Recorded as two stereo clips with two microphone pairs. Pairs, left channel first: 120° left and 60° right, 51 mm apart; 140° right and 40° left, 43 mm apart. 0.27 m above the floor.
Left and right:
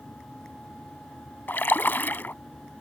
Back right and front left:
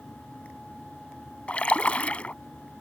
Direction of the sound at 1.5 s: 165° left.